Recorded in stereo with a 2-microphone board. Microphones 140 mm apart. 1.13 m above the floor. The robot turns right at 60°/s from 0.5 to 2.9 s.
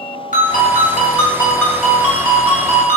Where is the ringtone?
95° left, 1.3 m; by 3.0 s 120° right, 1.3 m.